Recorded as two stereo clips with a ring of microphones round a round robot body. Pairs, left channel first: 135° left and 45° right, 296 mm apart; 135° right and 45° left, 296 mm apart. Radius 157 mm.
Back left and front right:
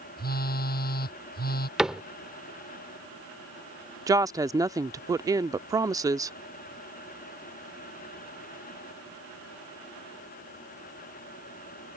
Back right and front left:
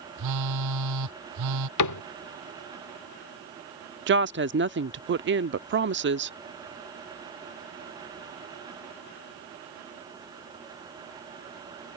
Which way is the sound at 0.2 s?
75° left.